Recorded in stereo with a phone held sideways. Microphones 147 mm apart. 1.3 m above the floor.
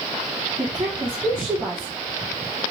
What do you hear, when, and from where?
0.6 s a woman speaking: 35° right (ahead or behind), 1.2 m